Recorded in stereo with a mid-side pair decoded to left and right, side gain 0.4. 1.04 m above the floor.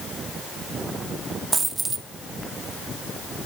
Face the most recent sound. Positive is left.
turn(degrees=-30)